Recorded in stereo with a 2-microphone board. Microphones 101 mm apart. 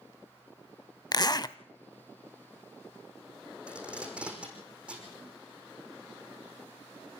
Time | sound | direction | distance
1.1 | a zipper | 45° left (ahead or behind) | 0.5 m
3.7 | tape being pulled | 10° right (ahead or behind) | 5 m